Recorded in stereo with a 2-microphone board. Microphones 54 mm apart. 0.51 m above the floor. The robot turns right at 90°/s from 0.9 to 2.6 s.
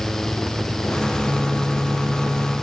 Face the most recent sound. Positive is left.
No sound to turn to.